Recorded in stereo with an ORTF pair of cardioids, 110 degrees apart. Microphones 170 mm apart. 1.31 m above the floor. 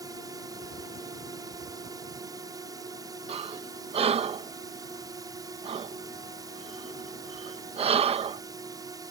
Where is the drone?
20° right.